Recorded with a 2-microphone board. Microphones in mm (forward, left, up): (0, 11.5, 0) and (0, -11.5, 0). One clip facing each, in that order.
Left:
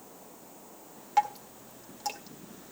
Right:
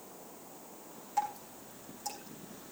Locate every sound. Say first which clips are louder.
1.2 s dripping: left 7 dB; 55° left (ahead or behind), 1.7 m